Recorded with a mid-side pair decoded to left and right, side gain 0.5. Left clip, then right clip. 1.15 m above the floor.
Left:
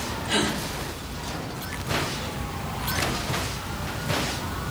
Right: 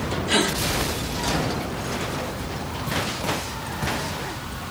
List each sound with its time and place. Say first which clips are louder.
0.3 s a gasp: right 3 dB; 30° right, 3 m